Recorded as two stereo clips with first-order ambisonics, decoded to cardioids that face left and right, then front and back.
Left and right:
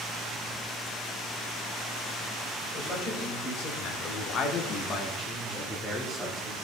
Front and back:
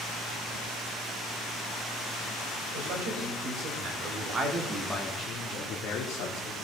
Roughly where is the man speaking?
Behind left.